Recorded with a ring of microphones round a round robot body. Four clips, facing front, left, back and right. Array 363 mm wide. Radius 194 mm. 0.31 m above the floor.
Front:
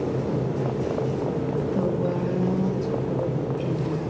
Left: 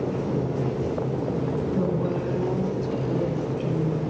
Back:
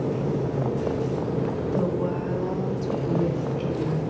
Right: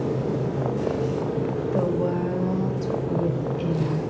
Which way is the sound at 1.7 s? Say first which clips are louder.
Right 4 dB, even; 80° right.